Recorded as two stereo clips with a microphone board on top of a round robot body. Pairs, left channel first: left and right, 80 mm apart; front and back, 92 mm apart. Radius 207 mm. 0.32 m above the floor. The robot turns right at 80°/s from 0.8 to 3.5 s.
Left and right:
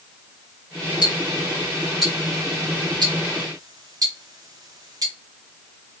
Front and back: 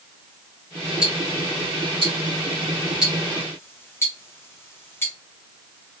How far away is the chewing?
I don't hear chewing.